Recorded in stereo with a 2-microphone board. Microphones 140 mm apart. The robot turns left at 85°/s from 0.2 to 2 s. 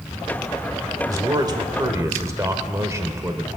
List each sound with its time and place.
1.1 s a man speaking: 55° right, 1.0 m; by 3.5 s 130° right, 1.0 m